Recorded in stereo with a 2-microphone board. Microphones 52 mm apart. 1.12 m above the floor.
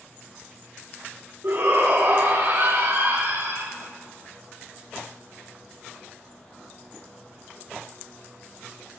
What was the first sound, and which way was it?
A shout, 60° right (ahead or behind).